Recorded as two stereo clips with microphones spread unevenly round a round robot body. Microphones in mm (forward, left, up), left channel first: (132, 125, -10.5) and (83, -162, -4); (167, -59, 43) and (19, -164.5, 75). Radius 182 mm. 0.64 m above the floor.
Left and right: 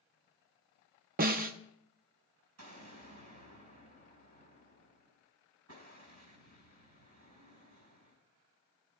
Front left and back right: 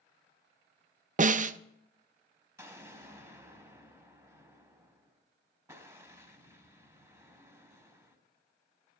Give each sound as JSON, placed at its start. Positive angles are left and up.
{"t": 1.2, "sound": "a snare drum", "azimuth_deg": -130, "distance_m": 0.6}
{"t": 2.6, "sound": "an explosion", "azimuth_deg": -70, "distance_m": 4.5}